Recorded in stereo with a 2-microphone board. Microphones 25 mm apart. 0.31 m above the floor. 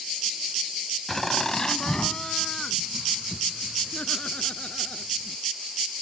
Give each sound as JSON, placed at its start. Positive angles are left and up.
{"t": 1.1, "sound": "laughter", "side_deg": 10}